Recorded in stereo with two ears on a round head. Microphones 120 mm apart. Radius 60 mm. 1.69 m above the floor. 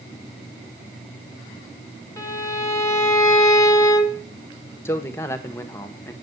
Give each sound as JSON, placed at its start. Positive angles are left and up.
{"t": 2.2, "sound": "a violin", "side_deg": 20, "distance_m": 1.7}
{"t": 4.8, "sound": "a man speaking", "side_deg": 15, "distance_m": 1.2}